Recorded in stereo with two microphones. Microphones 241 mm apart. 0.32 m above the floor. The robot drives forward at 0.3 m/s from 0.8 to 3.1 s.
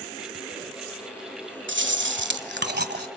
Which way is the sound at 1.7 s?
50° right (ahead or behind).